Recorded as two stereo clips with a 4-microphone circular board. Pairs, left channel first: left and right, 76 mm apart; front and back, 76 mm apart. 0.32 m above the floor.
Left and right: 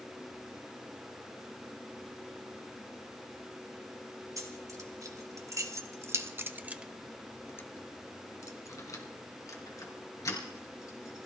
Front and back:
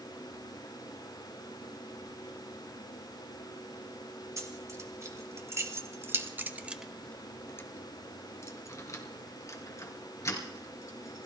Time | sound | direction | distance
4.4 | keys jangling | 135° right | 3 m